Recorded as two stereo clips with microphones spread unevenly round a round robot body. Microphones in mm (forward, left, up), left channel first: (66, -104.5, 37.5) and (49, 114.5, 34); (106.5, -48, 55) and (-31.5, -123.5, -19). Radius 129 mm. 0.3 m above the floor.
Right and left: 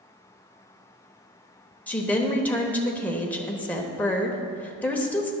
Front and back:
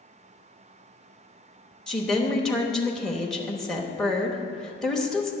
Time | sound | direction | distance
1.9 | a woman speaking | 160° right | 1.0 m